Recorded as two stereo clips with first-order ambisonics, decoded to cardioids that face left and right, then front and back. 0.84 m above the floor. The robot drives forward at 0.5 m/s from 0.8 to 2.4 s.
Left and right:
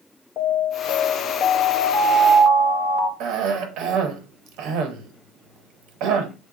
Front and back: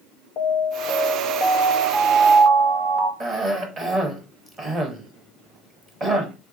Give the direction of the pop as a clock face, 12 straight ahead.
No pop in this recording.